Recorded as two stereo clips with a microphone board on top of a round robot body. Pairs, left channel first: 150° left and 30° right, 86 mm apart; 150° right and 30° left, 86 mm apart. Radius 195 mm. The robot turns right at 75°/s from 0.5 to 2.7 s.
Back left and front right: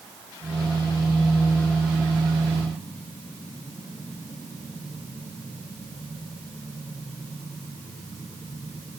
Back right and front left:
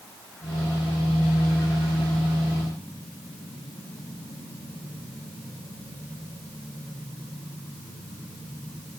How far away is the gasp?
I don't hear a gasp.